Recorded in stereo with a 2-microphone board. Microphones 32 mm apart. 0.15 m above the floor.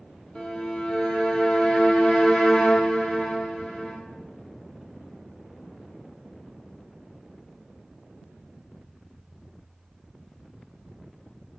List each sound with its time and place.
0.3 s a violin: 35° left (ahead or behind), 1.3 m